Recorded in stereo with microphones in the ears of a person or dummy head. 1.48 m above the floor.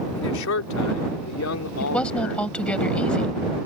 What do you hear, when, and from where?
0.2 s a man speaking: 75° left (ahead or behind); by 2.5 s 85° left
1.8 s a woman speaking: 10° left (ahead or behind)